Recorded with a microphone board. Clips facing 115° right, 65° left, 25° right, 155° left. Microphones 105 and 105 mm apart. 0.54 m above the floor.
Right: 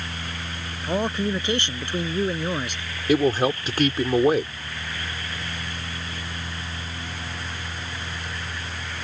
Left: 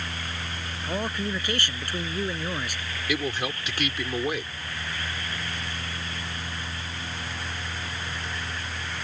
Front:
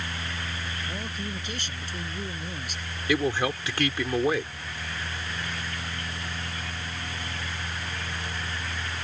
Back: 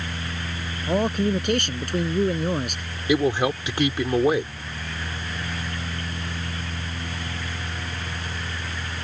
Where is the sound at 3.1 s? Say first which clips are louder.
Right 10 dB, back 5 dB; 140° right.